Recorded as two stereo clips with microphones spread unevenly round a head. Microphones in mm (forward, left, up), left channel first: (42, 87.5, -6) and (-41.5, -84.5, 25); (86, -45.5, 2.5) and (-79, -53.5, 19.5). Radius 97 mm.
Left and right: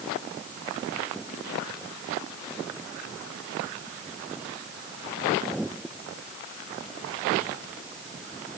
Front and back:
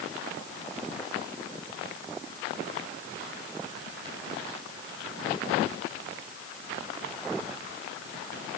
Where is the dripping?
I don't hear dripping.